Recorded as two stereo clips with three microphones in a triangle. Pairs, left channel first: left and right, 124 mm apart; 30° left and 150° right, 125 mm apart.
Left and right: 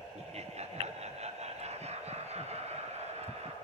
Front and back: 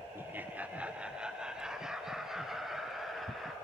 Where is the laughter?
80° right, 1.6 m; by 3.5 s 60° right, 5 m.